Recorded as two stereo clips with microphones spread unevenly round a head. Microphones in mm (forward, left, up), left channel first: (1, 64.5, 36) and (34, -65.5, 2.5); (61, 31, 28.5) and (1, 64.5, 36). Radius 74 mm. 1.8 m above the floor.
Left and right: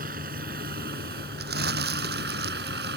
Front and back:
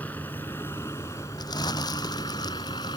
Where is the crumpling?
80° right.